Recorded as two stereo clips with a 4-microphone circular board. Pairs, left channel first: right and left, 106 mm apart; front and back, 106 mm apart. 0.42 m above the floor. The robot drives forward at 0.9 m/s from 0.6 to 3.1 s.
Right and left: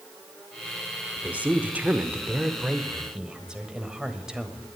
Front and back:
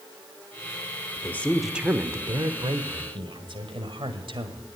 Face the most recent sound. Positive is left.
turn(degrees=170)